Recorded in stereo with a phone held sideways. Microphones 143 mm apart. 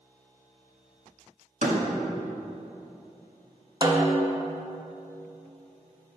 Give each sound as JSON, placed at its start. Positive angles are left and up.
{"t": 1.6, "sound": "a door slam", "side_deg": -60, "distance_m": 1.4}
{"t": 3.8, "sound": "a snare drum", "side_deg": -30, "distance_m": 1.0}